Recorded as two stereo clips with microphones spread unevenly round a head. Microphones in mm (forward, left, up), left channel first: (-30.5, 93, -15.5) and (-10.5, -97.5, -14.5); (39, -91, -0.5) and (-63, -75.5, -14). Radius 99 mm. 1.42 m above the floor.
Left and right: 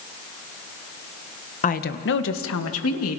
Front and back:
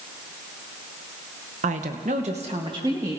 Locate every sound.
1.6 s a woman speaking: 150° left, 1.0 m; by 3.2 s 95° left, 2 m